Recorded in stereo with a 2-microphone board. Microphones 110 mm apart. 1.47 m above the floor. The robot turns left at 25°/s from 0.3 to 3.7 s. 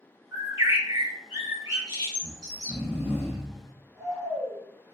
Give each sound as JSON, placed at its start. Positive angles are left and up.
{"t": 0.3, "sound": "a bird", "azimuth_deg": -55, "distance_m": 1.5}
{"t": 2.2, "sound": "snoring", "azimuth_deg": -10, "distance_m": 0.6}